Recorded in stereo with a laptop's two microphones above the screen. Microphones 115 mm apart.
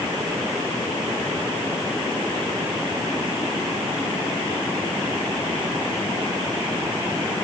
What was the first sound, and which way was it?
Only background noise.